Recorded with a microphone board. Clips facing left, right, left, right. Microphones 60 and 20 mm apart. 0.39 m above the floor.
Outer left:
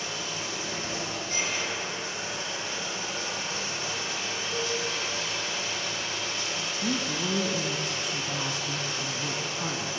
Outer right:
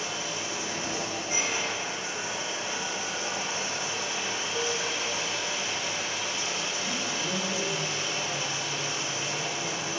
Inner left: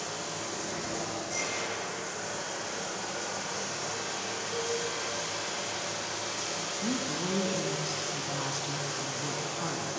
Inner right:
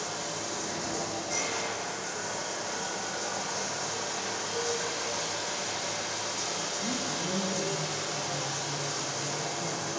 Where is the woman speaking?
70° left (ahead or behind), 3 m.